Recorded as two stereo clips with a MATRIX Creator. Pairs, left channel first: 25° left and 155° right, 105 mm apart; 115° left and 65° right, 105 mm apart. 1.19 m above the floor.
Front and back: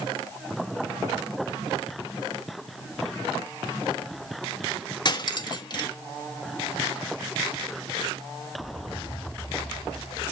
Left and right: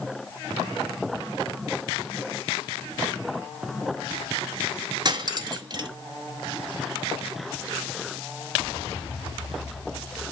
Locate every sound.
5.0 s cutlery clinking: 20° right, 1.1 m